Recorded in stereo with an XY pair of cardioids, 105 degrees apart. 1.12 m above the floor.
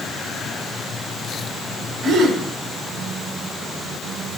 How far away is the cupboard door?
I don't hear a cupboard door.